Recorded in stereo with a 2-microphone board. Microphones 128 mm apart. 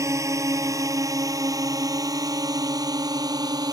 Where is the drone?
25° right (ahead or behind); by 3.7 s 35° right (ahead or behind).